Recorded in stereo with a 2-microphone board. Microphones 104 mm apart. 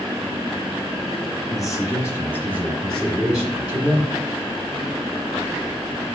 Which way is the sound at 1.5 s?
35° left (ahead or behind).